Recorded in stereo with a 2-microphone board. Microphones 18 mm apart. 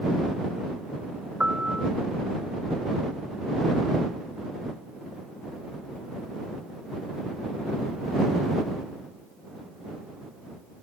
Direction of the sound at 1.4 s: 65° right (ahead or behind).